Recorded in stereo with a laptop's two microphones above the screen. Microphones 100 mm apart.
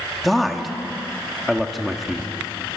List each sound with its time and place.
0.2 s a man speaking: centre (ahead or behind), 1.6 m